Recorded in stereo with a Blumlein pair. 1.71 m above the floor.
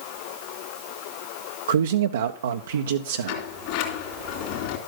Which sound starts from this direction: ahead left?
A sliding door, at 3.3 s.